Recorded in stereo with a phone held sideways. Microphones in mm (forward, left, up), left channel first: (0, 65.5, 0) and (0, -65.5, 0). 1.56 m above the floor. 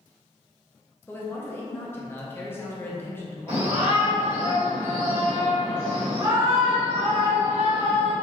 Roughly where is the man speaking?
Centre.